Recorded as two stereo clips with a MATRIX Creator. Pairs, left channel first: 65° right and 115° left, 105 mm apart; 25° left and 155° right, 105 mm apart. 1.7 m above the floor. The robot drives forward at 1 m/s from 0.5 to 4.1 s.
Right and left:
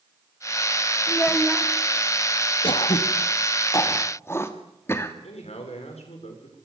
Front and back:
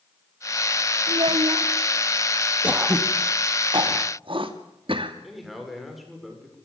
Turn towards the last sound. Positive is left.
turn(degrees=-70)